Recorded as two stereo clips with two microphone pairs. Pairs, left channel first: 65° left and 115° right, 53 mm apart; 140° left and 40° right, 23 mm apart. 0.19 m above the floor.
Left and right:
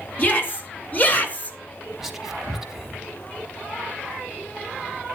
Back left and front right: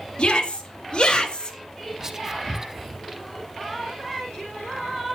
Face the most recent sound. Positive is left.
turn(degrees=-40)